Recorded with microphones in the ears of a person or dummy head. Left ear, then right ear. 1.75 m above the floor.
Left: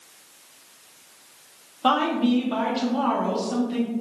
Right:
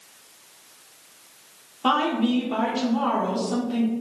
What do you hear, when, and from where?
1.8 s a woman speaking: 10° left (ahead or behind), 0.7 m